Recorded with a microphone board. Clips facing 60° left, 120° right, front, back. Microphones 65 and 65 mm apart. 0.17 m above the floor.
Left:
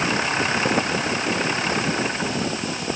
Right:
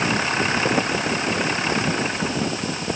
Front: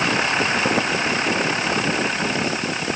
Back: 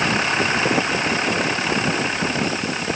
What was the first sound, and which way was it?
Only background noise.